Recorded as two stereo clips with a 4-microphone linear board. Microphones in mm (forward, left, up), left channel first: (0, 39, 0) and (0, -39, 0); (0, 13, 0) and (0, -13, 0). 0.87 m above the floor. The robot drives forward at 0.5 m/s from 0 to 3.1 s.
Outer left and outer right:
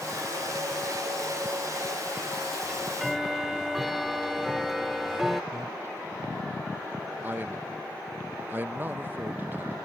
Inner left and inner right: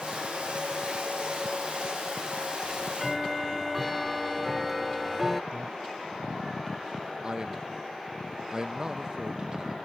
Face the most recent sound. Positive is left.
turn(degrees=-25)  # may be behind; listen again after turning